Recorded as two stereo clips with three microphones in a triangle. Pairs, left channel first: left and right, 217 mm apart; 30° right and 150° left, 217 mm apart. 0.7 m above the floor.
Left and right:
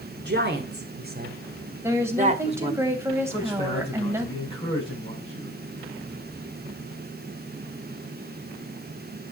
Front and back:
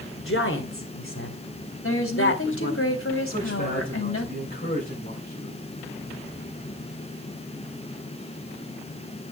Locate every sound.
0.2 s a woman speaking: 50° right, 3 m; by 2.8 s 25° right, 1.8 m
1.8 s a woman speaking: 10° right, 3 m
3.3 s a man speaking: 25° left, 7.5 m